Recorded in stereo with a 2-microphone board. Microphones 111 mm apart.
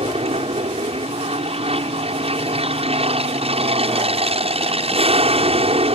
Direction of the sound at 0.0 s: 60° right (ahead or behind).